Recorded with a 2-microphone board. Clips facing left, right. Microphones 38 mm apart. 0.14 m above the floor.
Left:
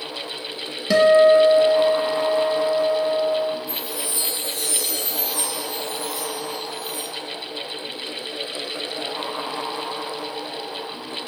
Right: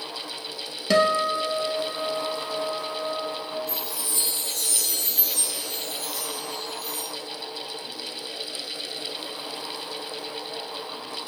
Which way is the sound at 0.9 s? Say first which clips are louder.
Left 8 dB; 5° left (ahead or behind).